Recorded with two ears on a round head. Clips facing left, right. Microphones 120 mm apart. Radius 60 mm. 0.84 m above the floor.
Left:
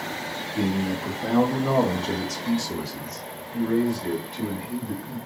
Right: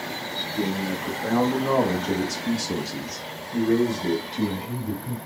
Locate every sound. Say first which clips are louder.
0.6 s a man speaking: left 2 dB; 25° left (ahead or behind), 1.6 m; by 5.2 s 45° right (ahead or behind), 1.8 m